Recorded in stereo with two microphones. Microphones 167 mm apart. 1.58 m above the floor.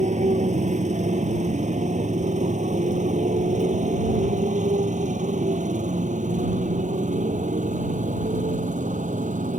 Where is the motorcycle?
45° right (ahead or behind); by 9.6 s 50° right (ahead or behind).